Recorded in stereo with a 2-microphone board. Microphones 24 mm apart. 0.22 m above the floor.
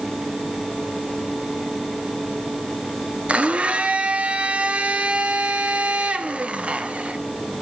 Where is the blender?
55° right (ahead or behind), 1.8 m.